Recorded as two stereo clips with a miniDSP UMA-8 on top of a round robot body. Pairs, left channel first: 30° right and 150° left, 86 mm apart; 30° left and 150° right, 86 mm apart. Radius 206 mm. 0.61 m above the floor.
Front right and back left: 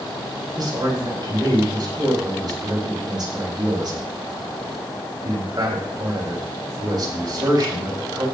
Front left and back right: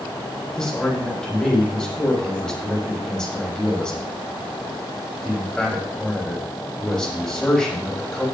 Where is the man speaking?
110° left, 7 m.